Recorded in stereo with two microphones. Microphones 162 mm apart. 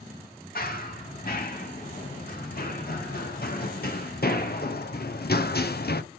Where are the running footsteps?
65° left (ahead or behind), 4.5 m; by 6.0 s 75° left (ahead or behind), 1.1 m.